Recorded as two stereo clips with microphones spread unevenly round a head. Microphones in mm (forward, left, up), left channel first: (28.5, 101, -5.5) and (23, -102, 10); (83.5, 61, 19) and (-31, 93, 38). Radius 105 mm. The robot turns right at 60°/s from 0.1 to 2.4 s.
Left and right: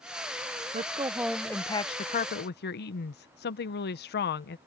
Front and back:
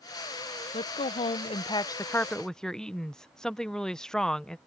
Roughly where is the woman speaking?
Ahead right.